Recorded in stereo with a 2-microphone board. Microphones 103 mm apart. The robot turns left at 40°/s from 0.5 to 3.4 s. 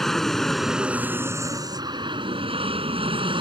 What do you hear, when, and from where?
0.0 s an aircraft: straight ahead; by 3.4 s 115° right